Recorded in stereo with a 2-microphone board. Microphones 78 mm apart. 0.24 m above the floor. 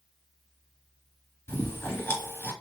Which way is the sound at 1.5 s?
30° left (ahead or behind).